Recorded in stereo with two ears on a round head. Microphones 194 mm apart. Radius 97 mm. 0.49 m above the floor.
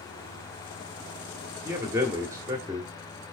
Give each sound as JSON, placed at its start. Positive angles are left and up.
{"t": 1.6, "sound": "a man speaking", "side_deg": -15, "distance_m": 1.3}